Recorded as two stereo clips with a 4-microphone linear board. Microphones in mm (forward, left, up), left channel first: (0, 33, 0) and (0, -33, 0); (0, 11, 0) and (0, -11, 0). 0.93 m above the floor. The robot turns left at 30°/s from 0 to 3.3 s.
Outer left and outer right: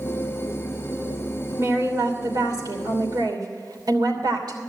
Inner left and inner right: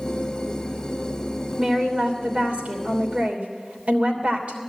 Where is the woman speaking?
50° right, 3 m; by 4.6 s 100° right, 3 m.